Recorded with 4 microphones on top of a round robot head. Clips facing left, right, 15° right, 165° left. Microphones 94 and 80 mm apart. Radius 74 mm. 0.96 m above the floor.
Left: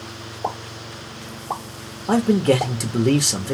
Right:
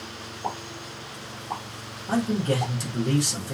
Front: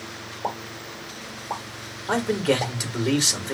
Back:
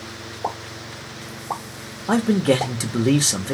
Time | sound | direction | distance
0.4 | a pop | 130° left | 2 m
2.1 | a man speaking | 110° left | 1.1 m